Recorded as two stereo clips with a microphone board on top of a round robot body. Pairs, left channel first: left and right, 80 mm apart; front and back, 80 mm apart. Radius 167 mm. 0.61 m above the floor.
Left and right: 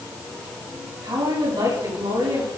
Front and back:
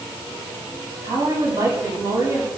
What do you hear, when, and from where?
1.0 s a woman speaking: 125° right, 6 m